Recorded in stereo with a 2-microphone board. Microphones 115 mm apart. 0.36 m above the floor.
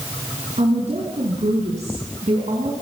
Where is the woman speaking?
75° right (ahead or behind), 5.5 m; by 2.7 s 70° right (ahead or behind), 4.5 m.